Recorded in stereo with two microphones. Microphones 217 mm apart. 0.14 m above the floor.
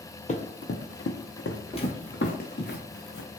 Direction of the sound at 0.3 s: 35° left (ahead or behind).